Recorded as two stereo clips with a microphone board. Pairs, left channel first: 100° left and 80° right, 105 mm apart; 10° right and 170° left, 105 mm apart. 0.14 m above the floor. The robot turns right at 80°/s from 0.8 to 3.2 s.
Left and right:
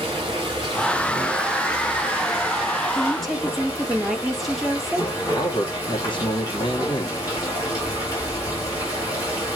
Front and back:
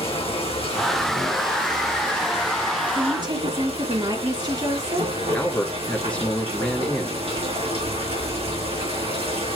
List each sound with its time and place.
0.0 s running water: 35° right, 5 m; by 9.6 s 155° left, 5 m
3.0 s a woman speaking: 170° left, 2 m; by 5.1 s 170° right, 2 m
5.3 s a man speaking: 65° left, 2.5 m